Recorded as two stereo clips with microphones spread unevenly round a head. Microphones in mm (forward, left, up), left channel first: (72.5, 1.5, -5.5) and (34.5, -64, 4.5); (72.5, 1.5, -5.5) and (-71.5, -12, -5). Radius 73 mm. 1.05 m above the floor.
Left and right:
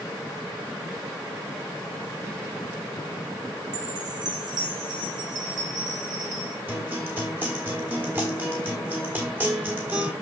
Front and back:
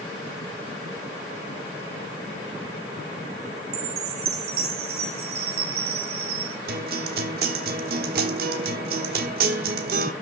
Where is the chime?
175° right, 1.5 m.